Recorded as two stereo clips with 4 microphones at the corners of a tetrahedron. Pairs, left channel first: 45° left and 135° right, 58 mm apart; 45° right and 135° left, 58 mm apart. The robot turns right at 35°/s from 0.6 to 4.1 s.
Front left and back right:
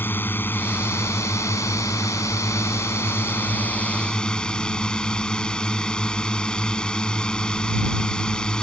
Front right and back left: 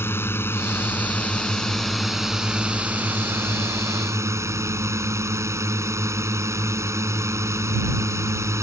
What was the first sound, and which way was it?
A drone, 5° right.